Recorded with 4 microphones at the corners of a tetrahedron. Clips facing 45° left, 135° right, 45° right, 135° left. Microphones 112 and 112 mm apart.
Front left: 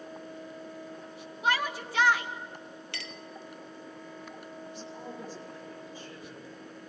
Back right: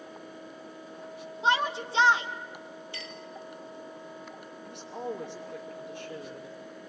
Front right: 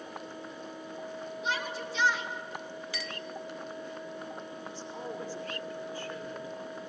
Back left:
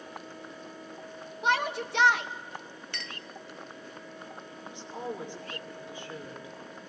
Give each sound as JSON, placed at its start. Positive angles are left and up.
{"t": 1.4, "sound": "a shout", "azimuth_deg": 160, "distance_m": 2.5}
{"t": 2.9, "sound": "a clink", "azimuth_deg": 40, "distance_m": 1.8}
{"t": 4.7, "sound": "a woman speaking", "azimuth_deg": -155, "distance_m": 5.5}